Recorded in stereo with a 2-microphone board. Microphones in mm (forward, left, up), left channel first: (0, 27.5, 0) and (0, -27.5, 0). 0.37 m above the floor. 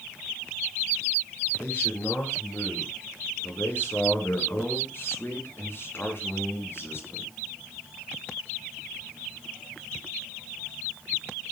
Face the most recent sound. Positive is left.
turn(degrees=50)  # may be behind; listen again after turning